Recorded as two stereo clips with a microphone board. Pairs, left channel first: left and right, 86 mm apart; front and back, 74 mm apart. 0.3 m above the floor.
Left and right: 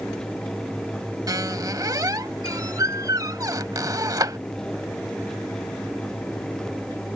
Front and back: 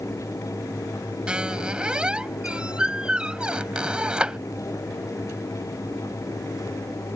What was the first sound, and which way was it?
A squeak, 110° right.